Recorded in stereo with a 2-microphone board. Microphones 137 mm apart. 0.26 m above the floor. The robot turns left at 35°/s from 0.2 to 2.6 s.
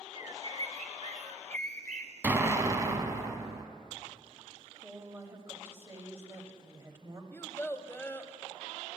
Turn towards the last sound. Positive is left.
turn(degrees=15)  # may be behind; listen again after turning